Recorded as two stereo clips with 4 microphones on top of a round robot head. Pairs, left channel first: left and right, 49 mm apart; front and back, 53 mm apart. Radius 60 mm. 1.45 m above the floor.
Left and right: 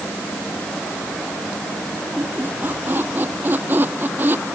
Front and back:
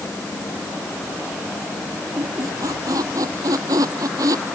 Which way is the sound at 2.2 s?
150° right.